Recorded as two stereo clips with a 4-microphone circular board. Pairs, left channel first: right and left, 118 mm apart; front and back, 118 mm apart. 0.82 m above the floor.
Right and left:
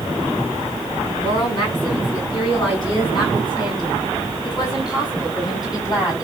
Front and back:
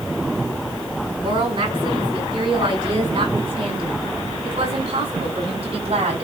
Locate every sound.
1.2 s a woman speaking: 135° right, 7.5 m; by 6.2 s 145° right, 5 m